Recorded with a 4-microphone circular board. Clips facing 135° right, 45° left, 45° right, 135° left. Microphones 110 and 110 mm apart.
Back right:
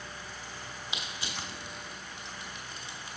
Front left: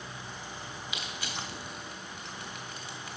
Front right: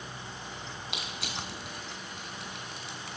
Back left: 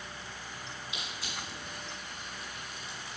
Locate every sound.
0.9 s crushing: 70° right, 1.1 m